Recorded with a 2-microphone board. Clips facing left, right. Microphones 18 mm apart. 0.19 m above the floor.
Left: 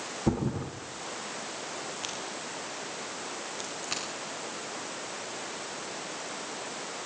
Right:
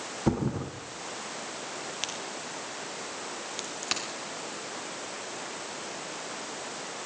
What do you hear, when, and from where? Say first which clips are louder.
0.3 s a thud: right 1 dB; 35° right (ahead or behind), 5 m
1.9 s a crack: right 1 dB; 80° right, 5.5 m